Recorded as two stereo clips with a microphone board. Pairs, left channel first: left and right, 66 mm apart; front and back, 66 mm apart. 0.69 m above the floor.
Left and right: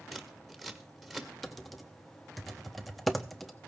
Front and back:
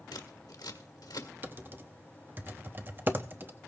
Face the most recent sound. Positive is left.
turn(degrees=175)